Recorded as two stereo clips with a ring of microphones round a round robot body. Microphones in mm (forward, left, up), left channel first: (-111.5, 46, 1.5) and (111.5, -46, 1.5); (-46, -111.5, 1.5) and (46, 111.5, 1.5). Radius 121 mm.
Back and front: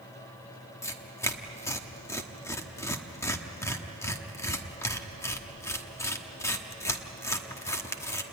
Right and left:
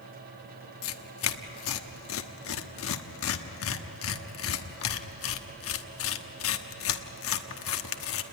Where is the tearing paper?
125° right, 1.1 m.